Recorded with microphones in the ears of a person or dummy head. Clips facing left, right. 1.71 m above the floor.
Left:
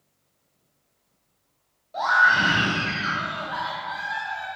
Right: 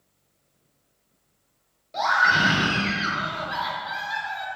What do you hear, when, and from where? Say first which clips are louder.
1.9 s a scream: even; 35° right (ahead or behind), 1.3 m